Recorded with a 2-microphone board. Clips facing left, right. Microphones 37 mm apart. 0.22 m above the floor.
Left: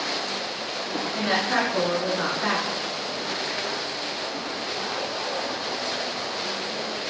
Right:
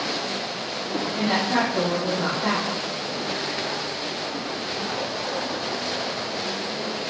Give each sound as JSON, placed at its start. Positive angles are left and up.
{"t": 1.1, "sound": "a woman speaking", "side_deg": 65, "distance_m": 3.0}